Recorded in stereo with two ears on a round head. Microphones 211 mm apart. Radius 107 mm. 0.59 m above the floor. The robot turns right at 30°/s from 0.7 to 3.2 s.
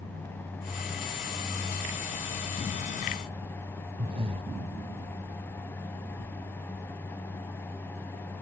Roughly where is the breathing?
Right.